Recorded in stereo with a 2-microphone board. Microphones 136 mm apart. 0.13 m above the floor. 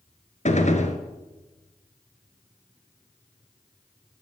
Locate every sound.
0.5 s a gunshot: 55° left (ahead or behind), 1.4 m